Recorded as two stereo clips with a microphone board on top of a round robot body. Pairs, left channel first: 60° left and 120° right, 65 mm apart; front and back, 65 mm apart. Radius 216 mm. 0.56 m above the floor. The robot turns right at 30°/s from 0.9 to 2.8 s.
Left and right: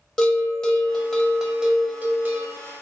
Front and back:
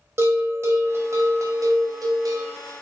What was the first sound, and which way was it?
A bell, 140° left.